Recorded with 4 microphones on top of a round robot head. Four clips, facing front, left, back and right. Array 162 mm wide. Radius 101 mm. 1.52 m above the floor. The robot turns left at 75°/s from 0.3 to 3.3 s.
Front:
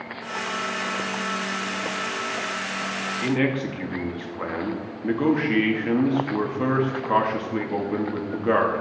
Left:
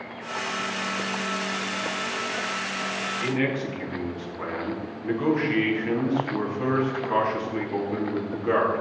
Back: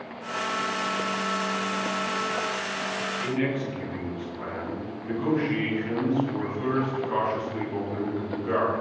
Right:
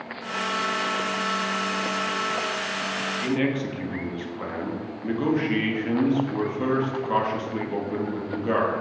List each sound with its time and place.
3.2 s a man speaking: 5° right, 2.5 m; by 8.8 s 15° right, 2.5 m